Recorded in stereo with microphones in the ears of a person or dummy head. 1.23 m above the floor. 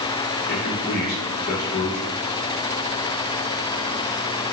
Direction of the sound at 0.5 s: 55° left (ahead or behind).